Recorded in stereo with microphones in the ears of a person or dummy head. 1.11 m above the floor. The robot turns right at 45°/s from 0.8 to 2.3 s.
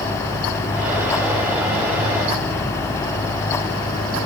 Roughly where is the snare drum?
No snare drum in this recording.